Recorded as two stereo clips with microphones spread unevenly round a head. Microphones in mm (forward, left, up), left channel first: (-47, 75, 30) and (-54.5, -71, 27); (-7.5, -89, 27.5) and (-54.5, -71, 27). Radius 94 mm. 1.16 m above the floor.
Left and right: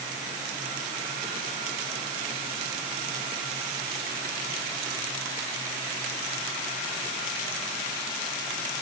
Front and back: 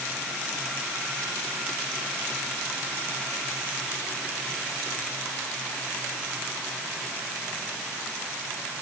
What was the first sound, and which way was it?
Only background noise.